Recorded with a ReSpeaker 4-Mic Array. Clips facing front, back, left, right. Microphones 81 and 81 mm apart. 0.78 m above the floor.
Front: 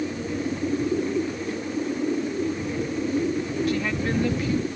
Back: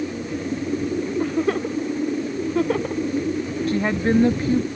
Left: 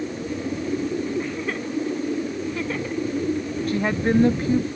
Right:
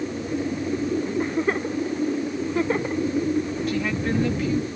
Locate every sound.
1.2 s a giggle: 150° right
3.7 s a woman speaking: 135° left